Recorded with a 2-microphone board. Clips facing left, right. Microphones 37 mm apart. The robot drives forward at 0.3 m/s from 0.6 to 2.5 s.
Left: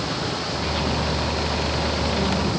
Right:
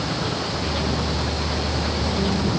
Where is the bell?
No bell in this recording.